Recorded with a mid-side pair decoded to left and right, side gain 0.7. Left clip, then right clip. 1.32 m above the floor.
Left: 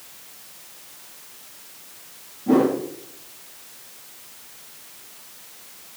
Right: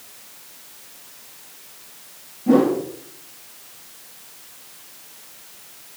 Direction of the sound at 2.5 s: 20° right.